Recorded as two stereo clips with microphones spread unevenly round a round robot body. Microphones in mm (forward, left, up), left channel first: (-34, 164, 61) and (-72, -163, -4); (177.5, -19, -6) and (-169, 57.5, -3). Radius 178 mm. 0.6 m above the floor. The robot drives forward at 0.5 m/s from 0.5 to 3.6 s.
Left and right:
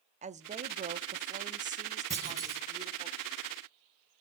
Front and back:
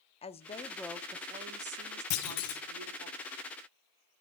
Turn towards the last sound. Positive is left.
turn(degrees=-25)